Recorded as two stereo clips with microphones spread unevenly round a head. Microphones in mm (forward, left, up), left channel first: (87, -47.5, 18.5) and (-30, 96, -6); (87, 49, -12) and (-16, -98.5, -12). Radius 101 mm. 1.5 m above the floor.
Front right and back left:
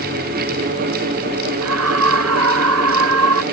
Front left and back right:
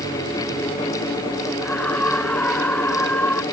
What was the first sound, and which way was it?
A scream, 140° left.